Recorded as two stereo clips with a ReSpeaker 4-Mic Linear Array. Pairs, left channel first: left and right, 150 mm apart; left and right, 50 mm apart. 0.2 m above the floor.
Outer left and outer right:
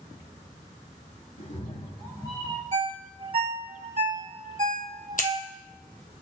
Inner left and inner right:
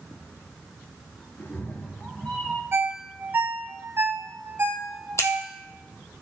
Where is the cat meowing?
55° left (ahead or behind), 1.3 m; by 2.6 s 15° left (ahead or behind), 2 m.